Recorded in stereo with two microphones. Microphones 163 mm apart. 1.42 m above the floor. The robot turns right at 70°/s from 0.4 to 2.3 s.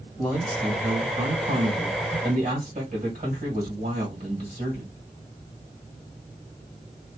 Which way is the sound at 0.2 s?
170° left.